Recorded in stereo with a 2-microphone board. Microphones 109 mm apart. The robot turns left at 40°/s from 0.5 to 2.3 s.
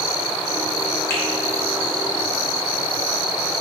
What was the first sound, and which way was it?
A finger snap, 25° left (ahead or behind).